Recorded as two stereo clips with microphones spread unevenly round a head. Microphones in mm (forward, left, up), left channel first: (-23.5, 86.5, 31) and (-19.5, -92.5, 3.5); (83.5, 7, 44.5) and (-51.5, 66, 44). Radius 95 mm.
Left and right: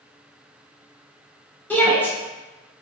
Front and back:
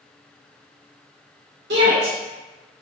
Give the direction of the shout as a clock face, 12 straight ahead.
6 o'clock.